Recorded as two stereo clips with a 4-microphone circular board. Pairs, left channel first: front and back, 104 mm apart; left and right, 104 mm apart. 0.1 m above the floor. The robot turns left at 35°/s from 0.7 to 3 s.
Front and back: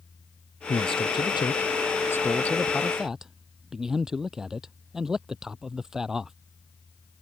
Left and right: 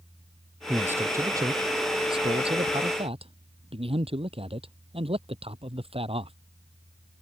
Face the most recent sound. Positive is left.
turn(degrees=-95)